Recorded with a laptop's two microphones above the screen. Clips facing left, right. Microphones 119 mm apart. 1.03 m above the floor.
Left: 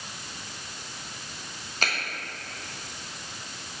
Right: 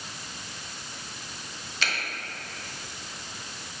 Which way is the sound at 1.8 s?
45° left (ahead or behind).